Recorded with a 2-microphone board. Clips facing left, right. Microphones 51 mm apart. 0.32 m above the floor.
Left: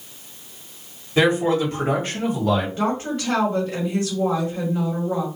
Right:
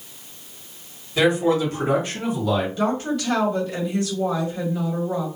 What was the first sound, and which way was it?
A man speaking, 30° left (ahead or behind).